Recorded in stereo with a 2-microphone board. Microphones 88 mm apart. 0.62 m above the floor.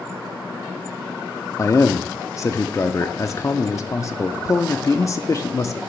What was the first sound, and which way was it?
A man speaking, 35° left (ahead or behind).